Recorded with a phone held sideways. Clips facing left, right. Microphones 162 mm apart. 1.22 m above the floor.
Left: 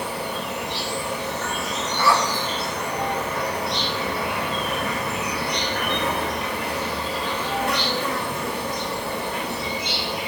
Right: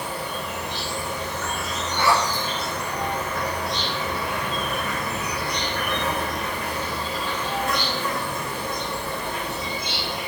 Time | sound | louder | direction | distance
0.0 | an insect | left 2 dB | 65° left (ahead or behind) | 0.9 m
2.0 | a zipper | even | 80° right | 0.9 m